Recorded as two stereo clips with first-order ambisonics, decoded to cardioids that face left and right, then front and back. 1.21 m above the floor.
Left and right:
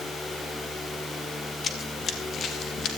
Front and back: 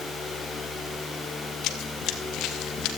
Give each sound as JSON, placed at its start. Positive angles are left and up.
{"t": 1.6, "sound": "running footsteps", "azimuth_deg": 30, "distance_m": 2.0}